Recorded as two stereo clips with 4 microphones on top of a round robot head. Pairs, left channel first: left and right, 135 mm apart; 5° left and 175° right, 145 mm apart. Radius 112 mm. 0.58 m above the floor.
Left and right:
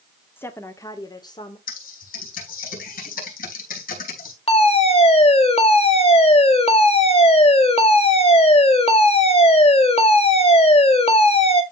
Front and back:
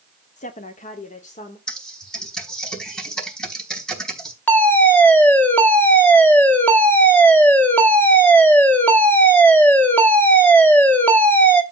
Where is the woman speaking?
15° left, 1.3 m; by 1.6 s 35° left, 2 m.